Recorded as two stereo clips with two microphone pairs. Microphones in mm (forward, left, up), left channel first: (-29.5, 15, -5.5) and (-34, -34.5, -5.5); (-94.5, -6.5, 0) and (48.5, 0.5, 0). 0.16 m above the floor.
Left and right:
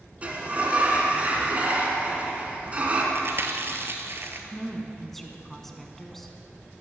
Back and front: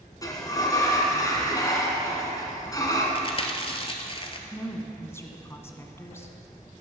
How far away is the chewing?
About 1.1 m.